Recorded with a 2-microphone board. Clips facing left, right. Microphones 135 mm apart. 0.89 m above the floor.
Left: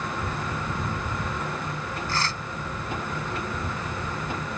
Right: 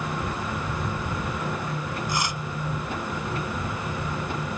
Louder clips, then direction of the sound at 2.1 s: Even; 15° right (ahead or behind).